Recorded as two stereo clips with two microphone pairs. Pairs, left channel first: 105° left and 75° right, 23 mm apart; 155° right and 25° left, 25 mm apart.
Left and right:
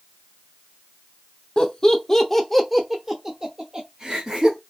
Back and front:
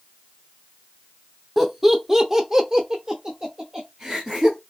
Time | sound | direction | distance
1.6 | laughter | 100° left | 0.9 m